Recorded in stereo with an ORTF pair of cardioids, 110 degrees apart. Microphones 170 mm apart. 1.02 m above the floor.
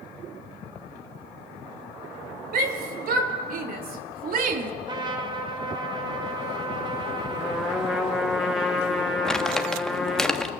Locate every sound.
2.5 s a shout: 65° right, 4 m; by 4.7 s 55° right, 2 m
4.9 s a trumpet: 25° right, 3 m
7.4 s a trumpet: straight ahead, 5.5 m
9.2 s crumpling: 5° left, 1.3 m